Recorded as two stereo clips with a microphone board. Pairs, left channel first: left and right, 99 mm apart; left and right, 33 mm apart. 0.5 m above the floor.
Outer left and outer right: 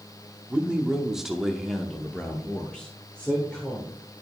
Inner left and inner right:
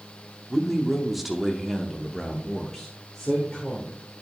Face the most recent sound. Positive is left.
turn(degrees=10)  # may be behind; listen again after turning